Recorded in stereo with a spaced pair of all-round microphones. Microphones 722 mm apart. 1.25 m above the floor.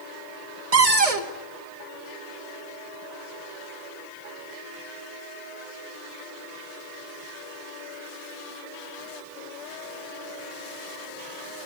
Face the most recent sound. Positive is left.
turn(degrees=-50)  # may be behind; listen again after turning